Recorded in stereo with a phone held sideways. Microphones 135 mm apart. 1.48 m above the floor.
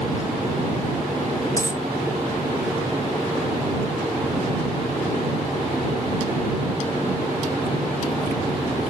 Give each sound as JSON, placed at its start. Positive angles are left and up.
{"t": 1.6, "sound": "a dropped coin", "side_deg": 25}